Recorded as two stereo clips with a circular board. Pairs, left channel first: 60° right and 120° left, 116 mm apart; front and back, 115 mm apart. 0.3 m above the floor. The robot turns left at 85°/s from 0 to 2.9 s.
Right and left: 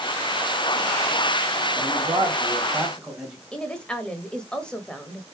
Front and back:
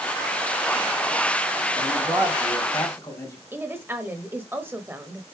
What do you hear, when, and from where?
1.8 s a man speaking: 140° left, 1.9 m; by 3.4 s 40° left, 1.9 m
3.5 s a woman speaking: 130° right, 0.9 m